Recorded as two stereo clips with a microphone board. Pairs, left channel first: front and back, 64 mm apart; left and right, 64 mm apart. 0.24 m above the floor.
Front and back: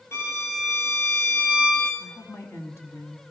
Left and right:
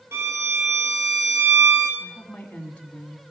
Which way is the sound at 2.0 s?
25° left.